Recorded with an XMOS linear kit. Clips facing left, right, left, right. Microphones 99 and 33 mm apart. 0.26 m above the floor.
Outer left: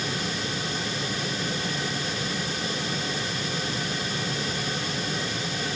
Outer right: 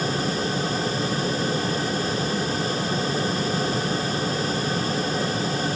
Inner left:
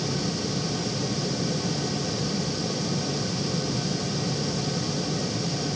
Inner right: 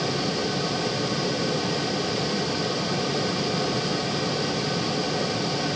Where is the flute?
I don't hear a flute.